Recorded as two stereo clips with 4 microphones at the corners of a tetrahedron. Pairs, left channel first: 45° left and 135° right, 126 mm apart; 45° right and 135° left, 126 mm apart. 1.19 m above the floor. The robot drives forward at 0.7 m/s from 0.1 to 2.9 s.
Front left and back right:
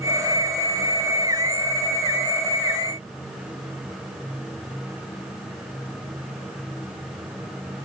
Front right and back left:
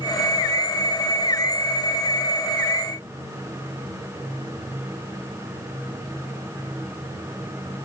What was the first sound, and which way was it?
Only background noise.